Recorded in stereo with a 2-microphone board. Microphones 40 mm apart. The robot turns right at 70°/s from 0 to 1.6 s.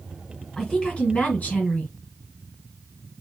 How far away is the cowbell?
I don't hear a cowbell.